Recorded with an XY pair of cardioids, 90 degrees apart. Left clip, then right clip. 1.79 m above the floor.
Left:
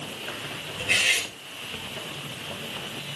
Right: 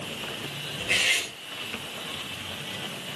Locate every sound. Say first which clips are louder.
0.8 s cutlery clinking: left 2 dB; 35° left, 5 m